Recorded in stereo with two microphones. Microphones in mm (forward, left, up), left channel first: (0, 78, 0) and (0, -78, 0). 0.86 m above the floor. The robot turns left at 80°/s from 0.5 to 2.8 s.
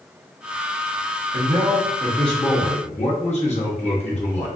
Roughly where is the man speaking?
Right.